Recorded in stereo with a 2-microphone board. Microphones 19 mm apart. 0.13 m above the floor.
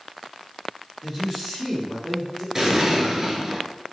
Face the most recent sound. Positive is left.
turn(degrees=-30)  # may be behind; listen again after turning